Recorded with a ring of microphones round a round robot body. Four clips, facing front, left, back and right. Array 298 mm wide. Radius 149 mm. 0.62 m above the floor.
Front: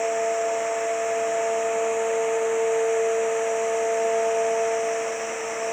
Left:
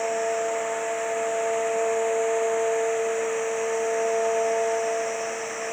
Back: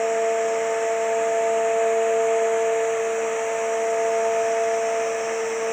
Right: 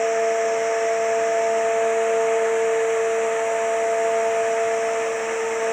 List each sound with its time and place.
Only background noise.